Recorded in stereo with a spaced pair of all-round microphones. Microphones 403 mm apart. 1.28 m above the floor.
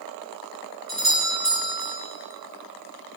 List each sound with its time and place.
0.9 s a doorbell: 65° right (ahead or behind), 2.5 m